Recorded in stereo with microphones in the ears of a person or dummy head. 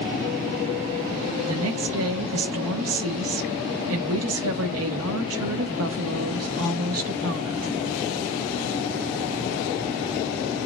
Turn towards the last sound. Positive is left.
turn(degrees=-70)  # may be behind; listen again after turning